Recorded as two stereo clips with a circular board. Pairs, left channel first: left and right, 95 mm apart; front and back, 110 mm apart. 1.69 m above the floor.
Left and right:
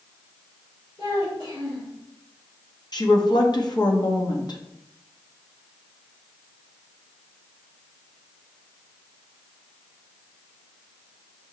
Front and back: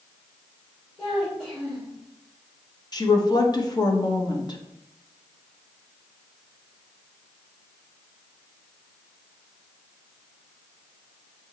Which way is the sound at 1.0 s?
85° left.